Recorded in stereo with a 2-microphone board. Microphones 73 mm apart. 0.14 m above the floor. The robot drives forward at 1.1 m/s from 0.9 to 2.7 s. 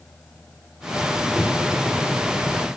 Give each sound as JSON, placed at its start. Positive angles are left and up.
{"t": 1.4, "sound": "knocking", "side_deg": -15, "distance_m": 3.0}